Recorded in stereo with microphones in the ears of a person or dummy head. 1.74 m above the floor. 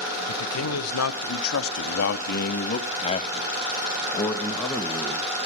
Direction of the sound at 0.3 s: 80° left.